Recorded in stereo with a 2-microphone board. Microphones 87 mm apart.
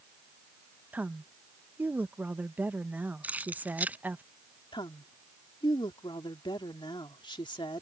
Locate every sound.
0.9 s a woman speaking: 20° right (ahead or behind)
3.2 s keys jangling: 15° right (ahead or behind)
4.7 s a woman speaking: 65° left (ahead or behind)